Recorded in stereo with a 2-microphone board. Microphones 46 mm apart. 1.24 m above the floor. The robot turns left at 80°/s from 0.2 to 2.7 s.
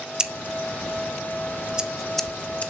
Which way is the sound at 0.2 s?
20° right (ahead or behind).